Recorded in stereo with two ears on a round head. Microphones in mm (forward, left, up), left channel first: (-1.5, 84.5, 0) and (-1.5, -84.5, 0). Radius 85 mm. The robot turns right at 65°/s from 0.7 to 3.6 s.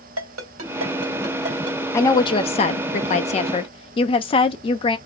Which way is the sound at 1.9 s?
20° left.